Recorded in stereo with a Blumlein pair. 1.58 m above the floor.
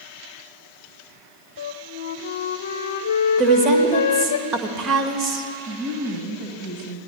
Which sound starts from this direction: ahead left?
A flute, at 1.6 s.